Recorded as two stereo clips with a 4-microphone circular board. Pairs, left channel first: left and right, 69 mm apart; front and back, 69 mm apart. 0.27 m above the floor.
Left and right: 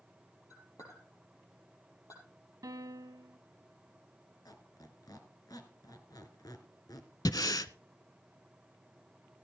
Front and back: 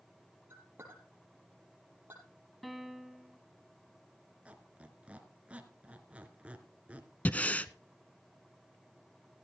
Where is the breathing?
70° left, 0.6 m.